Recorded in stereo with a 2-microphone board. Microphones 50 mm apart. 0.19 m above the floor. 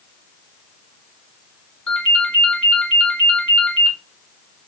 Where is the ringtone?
30° left (ahead or behind), 0.9 m.